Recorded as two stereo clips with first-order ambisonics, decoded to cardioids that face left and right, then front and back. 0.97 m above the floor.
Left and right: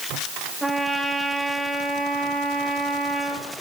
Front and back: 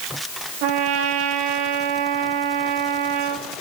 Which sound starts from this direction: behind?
A trumpet, at 0.6 s.